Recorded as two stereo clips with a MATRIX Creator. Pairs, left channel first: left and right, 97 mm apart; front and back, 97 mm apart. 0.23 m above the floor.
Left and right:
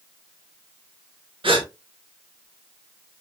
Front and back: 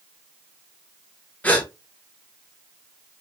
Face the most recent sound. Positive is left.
turn(degrees=-75)